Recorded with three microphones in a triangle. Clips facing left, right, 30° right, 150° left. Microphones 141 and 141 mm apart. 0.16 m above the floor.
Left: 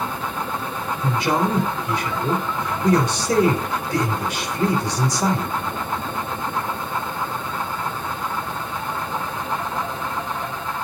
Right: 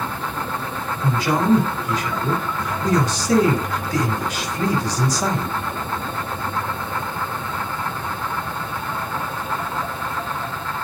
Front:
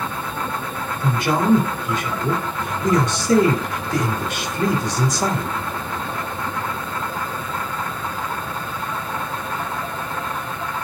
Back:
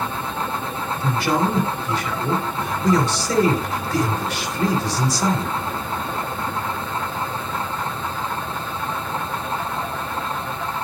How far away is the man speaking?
About 2.0 m.